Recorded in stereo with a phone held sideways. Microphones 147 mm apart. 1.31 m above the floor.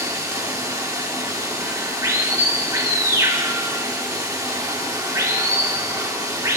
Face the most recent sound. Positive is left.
turn(degrees=-25)  # may be behind; listen again after turning